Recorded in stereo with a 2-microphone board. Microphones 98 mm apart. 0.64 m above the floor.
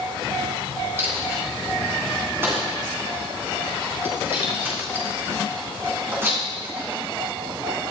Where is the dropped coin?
25° right (ahead or behind), 2.5 m.